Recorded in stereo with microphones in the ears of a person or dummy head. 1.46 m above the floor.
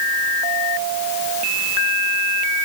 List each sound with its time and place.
Only background noise.